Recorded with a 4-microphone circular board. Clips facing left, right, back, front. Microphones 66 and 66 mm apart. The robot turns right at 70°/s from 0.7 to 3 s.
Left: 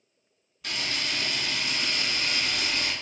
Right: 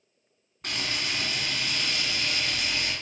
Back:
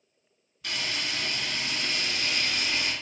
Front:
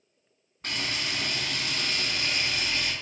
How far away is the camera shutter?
About 2 m.